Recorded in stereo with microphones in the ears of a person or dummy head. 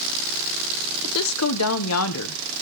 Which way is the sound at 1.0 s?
90° left.